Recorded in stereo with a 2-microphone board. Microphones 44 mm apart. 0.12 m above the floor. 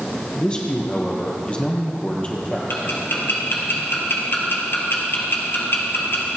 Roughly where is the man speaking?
Left.